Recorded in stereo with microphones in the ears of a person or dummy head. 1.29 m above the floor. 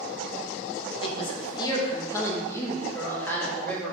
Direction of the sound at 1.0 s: 30° left (ahead or behind).